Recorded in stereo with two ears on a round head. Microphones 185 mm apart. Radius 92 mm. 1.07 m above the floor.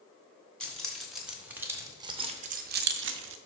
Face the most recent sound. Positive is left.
turn(degrees=-65)  # may be behind; listen again after turning